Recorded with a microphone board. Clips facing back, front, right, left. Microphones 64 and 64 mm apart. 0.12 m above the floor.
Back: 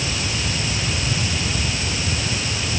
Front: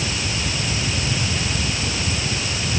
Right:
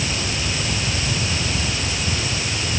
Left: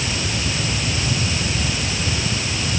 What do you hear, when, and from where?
Only background noise.